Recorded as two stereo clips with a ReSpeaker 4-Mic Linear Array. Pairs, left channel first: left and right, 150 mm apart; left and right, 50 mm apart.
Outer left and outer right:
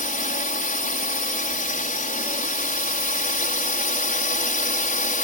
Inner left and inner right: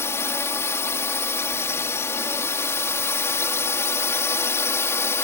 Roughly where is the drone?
Left.